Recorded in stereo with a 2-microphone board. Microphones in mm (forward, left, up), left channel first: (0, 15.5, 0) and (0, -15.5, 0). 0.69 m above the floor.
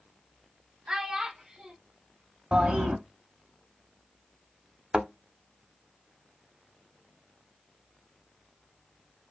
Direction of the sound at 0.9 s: 20° right (ahead or behind).